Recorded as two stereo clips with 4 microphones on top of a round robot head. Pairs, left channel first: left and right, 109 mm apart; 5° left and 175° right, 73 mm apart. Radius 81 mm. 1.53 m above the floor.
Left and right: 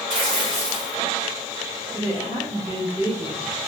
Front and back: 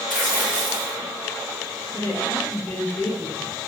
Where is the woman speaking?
40° left, 2 m.